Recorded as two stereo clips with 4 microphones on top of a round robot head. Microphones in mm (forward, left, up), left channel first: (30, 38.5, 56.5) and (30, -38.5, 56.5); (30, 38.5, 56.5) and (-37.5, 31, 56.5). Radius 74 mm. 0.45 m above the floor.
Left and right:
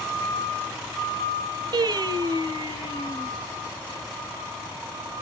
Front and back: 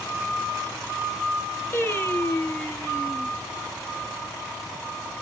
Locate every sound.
1.7 s singing: 60° right, 0.9 m